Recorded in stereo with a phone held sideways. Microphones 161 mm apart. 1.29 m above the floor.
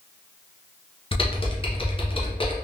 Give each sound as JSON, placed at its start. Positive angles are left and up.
{"t": 1.1, "sound": "typing on a keyboard", "side_deg": 35, "distance_m": 0.6}